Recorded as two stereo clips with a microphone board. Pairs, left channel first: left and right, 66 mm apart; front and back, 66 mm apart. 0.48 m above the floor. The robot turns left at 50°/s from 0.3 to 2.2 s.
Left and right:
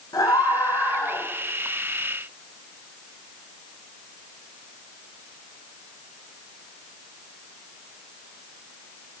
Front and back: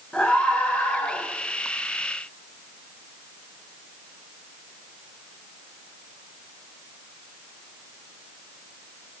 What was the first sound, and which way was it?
A scream, 75° left.